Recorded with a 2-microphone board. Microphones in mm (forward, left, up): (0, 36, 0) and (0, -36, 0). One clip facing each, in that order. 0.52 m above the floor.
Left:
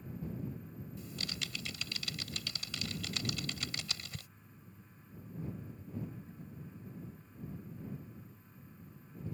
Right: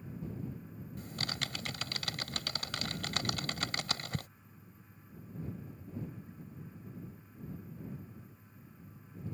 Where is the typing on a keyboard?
55° right (ahead or behind).